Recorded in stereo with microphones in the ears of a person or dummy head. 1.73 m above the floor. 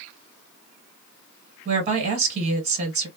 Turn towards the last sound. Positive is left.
turn(degrees=-40)  # may be behind; listen again after turning